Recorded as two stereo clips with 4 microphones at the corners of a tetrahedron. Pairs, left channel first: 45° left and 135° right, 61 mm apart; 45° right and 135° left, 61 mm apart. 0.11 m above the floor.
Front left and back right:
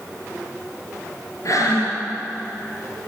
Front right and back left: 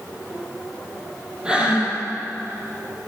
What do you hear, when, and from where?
1.4 s breathing: 60° left, 3 m